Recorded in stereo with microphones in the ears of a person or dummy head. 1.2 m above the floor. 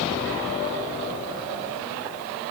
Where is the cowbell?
I don't hear a cowbell.